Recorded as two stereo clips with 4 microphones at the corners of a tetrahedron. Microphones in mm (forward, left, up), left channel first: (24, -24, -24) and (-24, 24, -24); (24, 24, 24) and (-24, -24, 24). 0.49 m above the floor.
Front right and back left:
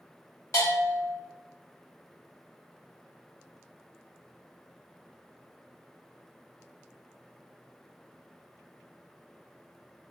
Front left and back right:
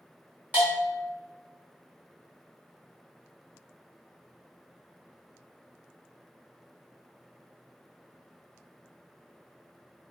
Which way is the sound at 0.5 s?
70° right.